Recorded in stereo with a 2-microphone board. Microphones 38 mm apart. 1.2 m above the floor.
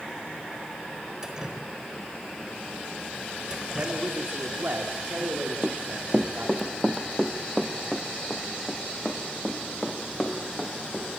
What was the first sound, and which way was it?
Dripping, 20° right (ahead or behind).